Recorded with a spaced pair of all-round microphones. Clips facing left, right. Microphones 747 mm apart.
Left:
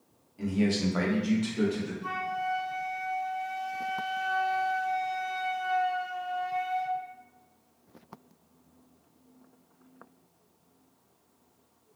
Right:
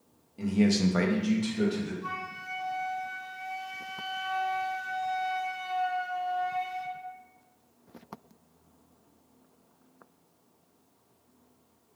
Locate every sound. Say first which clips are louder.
0.4 s a man speaking: right 2 dB; 70° right (ahead or behind), 0.8 m; by 1.9 s centre (ahead or behind), 0.8 m
2.0 s a flute: left 6 dB; 30° right (ahead or behind), 1.5 m